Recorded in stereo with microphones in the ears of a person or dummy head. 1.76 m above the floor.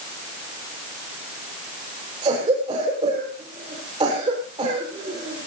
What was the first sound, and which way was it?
A cough, 25° right (ahead or behind).